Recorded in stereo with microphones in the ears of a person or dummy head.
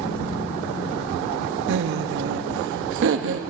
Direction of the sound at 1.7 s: 65° right (ahead or behind).